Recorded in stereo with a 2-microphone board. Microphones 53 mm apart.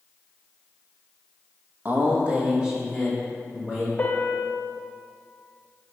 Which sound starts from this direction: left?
A piano, at 4.0 s.